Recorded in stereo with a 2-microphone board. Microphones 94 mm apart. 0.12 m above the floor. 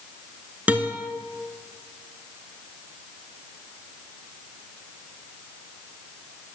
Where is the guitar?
15° right (ahead or behind), 0.6 m.